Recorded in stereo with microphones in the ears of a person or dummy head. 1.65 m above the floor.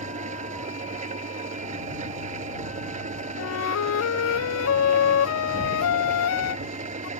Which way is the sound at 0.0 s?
40° right (ahead or behind).